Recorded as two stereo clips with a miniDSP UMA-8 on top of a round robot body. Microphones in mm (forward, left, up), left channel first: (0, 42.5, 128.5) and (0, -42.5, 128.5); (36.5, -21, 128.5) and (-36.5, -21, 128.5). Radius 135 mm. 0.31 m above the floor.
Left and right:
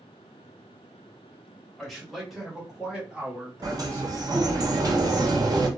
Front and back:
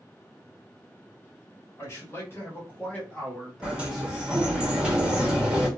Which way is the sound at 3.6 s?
105° right.